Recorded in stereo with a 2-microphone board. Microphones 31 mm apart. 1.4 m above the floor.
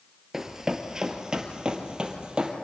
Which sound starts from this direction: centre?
Running footsteps, at 0.3 s.